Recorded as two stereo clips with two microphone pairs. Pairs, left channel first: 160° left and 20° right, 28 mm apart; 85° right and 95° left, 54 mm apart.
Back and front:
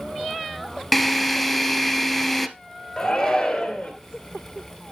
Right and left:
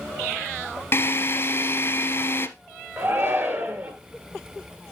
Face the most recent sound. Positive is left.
turn(degrees=90)